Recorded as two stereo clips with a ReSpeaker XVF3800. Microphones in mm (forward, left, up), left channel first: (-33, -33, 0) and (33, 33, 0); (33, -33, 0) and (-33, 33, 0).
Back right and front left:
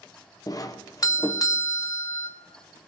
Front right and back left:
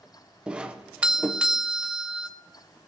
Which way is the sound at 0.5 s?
150° right.